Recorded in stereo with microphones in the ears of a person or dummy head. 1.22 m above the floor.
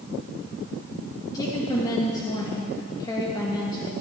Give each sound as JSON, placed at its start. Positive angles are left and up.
{"t": 1.3, "sound": "a woman speaking", "side_deg": 25, "distance_m": 1.5}